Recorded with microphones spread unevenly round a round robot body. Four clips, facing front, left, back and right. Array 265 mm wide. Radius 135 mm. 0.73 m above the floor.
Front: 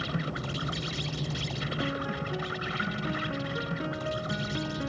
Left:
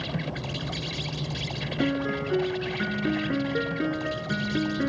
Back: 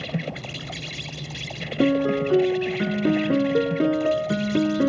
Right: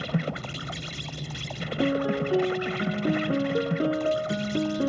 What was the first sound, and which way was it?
An insect, 110° right.